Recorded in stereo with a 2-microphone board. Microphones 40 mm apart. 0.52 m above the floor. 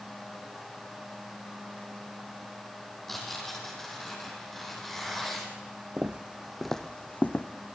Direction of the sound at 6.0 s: 40° right (ahead or behind).